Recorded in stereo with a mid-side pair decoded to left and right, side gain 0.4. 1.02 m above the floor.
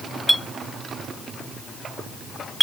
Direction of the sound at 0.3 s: Straight ahead.